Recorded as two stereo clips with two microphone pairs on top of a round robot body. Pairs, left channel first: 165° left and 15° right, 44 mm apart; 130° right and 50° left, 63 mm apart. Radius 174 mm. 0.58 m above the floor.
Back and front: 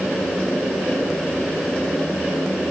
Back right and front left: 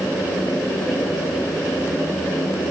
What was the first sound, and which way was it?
Only background noise.